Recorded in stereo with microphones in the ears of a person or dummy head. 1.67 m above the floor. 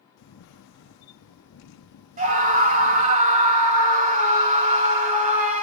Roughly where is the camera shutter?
Left.